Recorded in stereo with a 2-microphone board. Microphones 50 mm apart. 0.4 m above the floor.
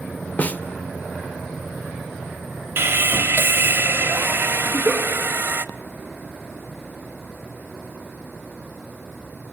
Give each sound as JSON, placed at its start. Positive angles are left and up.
{"t": 0.4, "sound": "a snare drum", "side_deg": 35, "distance_m": 0.8}
{"t": 2.8, "sound": "sawing", "side_deg": -55, "distance_m": 0.8}
{"t": 4.7, "sound": "a giggle", "side_deg": -40, "distance_m": 6.0}